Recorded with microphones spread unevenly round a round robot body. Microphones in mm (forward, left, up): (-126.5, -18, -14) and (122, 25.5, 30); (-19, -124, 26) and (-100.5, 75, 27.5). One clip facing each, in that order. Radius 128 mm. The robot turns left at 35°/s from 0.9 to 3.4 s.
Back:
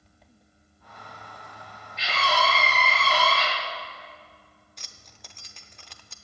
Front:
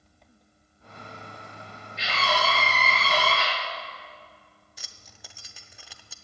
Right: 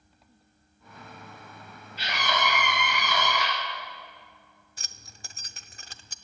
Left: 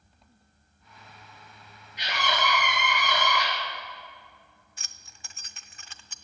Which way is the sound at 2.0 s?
175° right.